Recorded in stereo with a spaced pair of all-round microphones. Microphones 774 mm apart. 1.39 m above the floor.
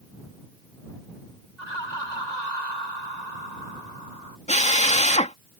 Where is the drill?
10° left (ahead or behind).